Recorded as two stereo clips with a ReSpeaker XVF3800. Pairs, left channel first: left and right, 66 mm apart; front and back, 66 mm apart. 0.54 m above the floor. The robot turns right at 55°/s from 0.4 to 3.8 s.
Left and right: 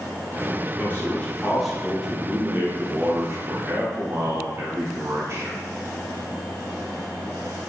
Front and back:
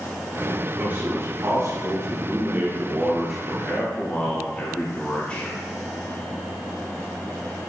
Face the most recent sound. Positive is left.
turn(degrees=-65)